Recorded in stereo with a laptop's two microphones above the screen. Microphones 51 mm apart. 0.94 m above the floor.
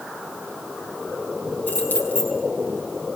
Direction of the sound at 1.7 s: 35° left (ahead or behind).